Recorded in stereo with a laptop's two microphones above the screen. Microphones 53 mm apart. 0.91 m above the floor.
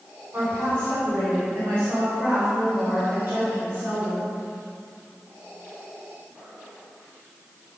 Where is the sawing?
No sawing in this recording.